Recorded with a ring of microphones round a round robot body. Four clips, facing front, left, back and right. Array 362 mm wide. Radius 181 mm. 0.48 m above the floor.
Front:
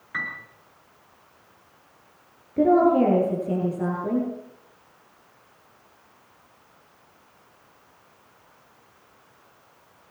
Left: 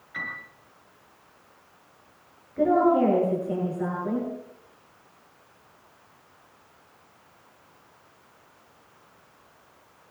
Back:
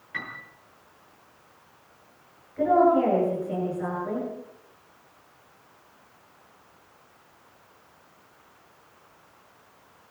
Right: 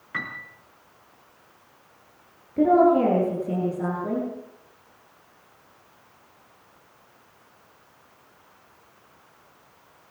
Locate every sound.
0.1 s a piano: 70° right, 5.5 m
2.6 s a woman speaking: 30° right, 10 m